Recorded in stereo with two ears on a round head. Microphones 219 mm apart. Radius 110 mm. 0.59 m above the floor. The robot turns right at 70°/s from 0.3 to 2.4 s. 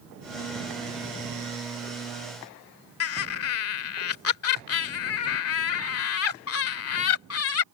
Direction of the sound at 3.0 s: 65° left (ahead or behind).